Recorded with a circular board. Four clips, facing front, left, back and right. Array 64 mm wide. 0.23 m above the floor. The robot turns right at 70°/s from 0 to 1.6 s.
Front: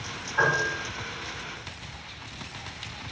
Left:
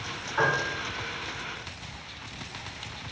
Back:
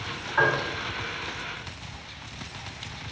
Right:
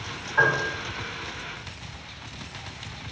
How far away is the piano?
About 1.8 m.